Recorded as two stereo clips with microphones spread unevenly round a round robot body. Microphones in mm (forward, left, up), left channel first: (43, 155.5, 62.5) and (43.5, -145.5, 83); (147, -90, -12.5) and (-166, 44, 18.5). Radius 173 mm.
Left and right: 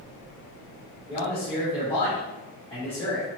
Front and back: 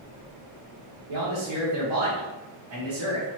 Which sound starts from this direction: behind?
A man speaking, at 1.1 s.